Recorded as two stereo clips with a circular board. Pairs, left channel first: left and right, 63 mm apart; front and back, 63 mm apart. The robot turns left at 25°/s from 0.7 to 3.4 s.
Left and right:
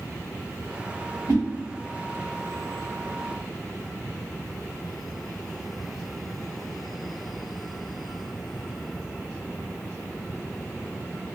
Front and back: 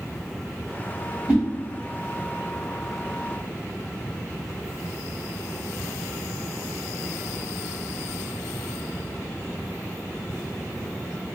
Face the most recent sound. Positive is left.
turn(degrees=-165)